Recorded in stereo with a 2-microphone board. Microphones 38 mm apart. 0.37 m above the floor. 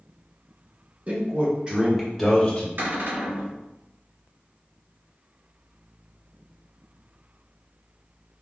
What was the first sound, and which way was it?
A man speaking, 45° right (ahead or behind).